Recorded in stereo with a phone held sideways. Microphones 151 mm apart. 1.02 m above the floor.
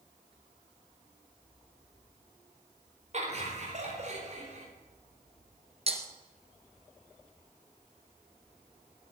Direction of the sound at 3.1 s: 50° right (ahead or behind).